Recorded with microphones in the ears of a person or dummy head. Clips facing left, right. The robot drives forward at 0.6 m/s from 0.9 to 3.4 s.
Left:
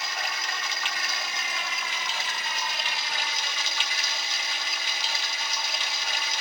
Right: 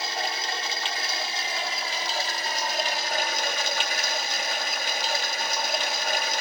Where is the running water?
30° right (ahead or behind); by 6.4 s 50° right (ahead or behind).